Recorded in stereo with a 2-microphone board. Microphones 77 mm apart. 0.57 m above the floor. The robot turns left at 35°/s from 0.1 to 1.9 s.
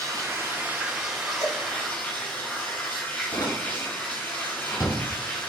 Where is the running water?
140° right, 9 m; by 5.5 s 155° left, 9 m.